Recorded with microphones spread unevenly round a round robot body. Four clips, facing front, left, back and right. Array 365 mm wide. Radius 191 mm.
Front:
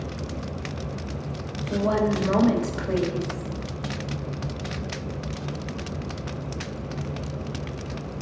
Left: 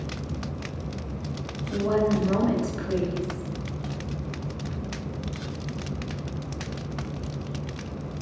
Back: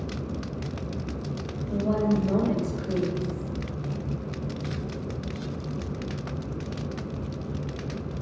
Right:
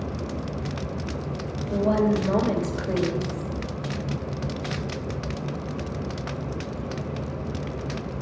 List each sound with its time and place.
1.7 s a woman speaking: 25° right, 3 m